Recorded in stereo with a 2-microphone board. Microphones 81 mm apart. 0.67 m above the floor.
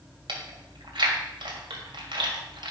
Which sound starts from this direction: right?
Chewing, at 0.3 s.